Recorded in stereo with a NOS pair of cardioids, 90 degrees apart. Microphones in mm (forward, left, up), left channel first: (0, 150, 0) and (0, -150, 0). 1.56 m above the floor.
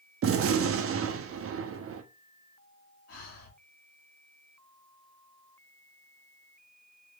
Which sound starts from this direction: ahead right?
A gunshot, at 0.2 s.